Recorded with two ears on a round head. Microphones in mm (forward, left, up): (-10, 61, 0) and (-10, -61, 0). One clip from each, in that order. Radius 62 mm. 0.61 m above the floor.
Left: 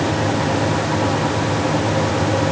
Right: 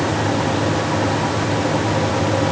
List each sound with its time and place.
Only background noise.